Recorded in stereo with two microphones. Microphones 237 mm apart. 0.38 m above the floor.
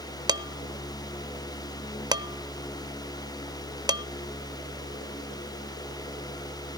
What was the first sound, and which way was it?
Dishes clattering, 15° right (ahead or behind).